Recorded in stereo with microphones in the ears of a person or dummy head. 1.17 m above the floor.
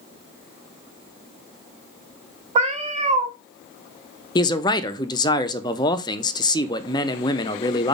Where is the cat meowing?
40° right (ahead or behind), 0.7 m.